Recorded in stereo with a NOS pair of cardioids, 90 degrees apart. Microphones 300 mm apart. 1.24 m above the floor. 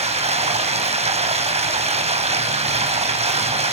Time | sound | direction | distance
0.0 | running water | 20° right | 4 m